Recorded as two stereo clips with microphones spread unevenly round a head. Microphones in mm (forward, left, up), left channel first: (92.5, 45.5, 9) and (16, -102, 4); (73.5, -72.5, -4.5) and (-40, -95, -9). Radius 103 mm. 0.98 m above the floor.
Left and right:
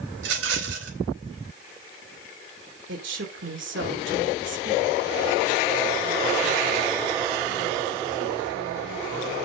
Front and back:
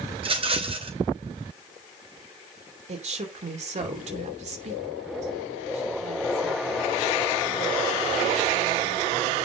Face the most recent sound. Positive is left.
turn(degrees=-150)